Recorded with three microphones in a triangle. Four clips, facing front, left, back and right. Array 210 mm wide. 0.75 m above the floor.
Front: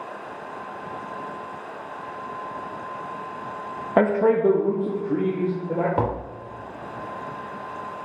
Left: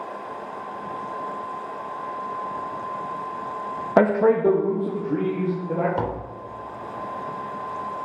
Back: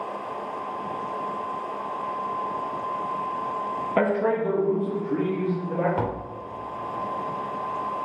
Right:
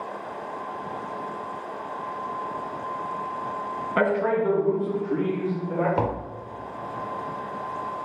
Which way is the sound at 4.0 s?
70° left.